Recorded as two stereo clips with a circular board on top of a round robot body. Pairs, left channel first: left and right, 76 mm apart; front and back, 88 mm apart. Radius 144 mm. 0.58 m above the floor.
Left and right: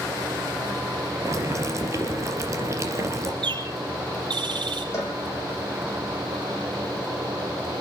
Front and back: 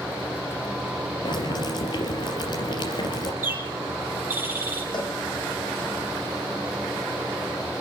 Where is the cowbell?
40° left, 6.5 m.